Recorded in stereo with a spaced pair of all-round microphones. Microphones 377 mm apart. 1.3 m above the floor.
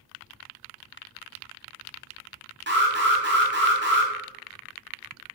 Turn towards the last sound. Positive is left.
turn(degrees=-30)  # may be behind; listen again after turning